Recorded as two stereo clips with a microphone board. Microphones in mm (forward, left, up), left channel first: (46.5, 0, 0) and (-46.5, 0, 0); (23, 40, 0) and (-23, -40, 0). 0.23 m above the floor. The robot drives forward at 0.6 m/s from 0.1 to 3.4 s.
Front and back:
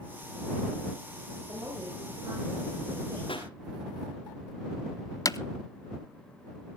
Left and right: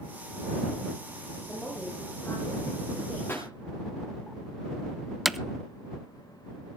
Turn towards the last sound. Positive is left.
turn(degrees=-35)